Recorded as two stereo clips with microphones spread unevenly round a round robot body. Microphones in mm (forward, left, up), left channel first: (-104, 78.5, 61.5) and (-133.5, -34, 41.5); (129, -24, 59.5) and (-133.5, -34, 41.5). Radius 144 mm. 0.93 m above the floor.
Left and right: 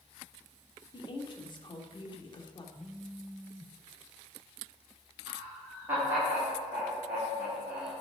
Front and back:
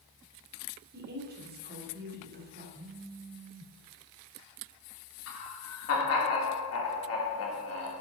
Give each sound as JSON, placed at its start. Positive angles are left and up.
{"t": 0.9, "sound": "a woman speaking", "azimuth_deg": 125, "distance_m": 2.0}
{"t": 2.8, "sound": "a phone buzzing", "azimuth_deg": -170, "distance_m": 0.8}
{"t": 5.3, "sound": "laughter", "azimuth_deg": -30, "distance_m": 3.5}